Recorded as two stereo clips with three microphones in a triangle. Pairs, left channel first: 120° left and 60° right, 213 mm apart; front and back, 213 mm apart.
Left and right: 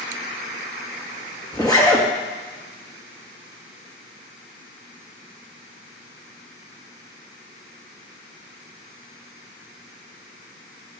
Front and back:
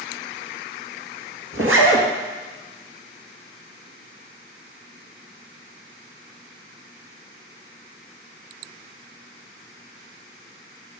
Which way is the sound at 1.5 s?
170° right.